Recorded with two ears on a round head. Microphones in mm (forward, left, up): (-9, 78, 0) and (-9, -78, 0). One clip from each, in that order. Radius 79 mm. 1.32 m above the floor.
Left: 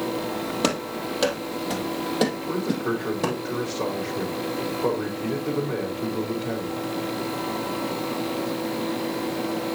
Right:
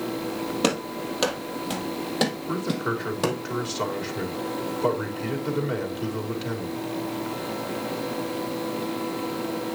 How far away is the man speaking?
About 3.5 m.